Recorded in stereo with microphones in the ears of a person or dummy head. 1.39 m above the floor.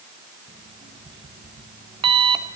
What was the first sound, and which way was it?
An alarm clock, 25° right (ahead or behind).